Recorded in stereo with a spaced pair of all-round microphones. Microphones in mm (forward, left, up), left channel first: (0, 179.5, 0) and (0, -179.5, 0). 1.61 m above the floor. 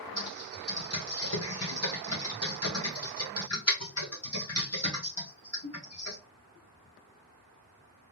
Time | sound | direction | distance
0.2 | typing on a keyboard | 45° left (ahead or behind) | 1.7 m